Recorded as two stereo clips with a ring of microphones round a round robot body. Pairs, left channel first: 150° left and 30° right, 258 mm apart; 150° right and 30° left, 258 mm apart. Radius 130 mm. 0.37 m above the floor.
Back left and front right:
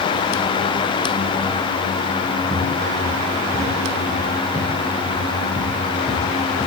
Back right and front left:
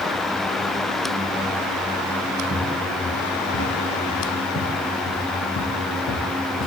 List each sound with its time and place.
2.5 s footsteps: 100° right, 9.5 m; by 6.7 s 140° right, 5.5 m